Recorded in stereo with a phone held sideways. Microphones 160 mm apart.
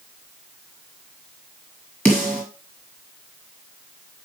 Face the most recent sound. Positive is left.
turn(degrees=10)  # may be behind; listen again after turning